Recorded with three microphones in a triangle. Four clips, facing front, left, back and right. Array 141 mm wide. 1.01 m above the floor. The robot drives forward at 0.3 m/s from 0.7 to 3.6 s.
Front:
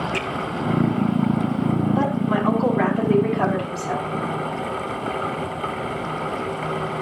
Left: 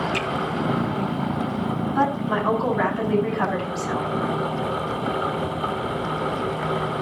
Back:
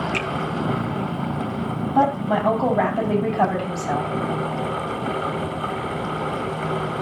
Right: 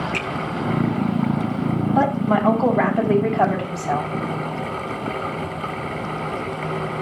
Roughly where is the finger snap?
Behind.